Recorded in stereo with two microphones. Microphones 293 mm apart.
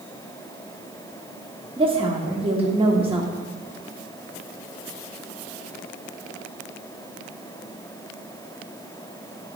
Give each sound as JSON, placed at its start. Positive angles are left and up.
{"t": 1.8, "sound": "a woman speaking", "side_deg": -20, "distance_m": 0.9}